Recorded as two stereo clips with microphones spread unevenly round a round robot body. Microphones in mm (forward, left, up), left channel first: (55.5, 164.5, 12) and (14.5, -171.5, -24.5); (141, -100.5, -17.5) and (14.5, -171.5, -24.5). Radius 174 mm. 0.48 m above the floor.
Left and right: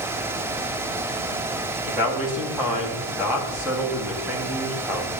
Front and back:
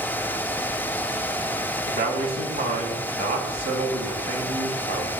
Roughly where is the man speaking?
Behind.